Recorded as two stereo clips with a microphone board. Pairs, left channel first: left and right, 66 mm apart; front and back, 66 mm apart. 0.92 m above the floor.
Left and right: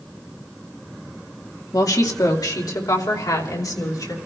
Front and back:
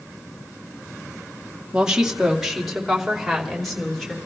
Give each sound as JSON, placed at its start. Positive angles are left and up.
{"t": 1.7, "sound": "a woman speaking", "azimuth_deg": 105, "distance_m": 1.8}